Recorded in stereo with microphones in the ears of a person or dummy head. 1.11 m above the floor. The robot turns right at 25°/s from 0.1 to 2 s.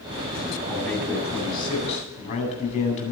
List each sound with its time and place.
0.7 s a man speaking: 10° left, 8.5 m; by 3.1 s 45° left, 8.5 m